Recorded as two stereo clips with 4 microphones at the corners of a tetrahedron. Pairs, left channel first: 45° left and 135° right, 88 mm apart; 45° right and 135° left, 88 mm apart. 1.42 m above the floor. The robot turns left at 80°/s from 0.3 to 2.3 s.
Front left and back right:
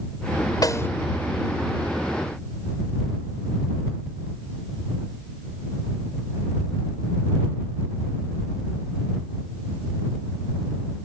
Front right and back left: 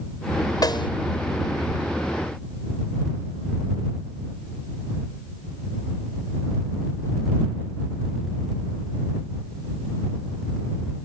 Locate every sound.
0.6 s a snare drum: straight ahead; by 0.9 s 20° right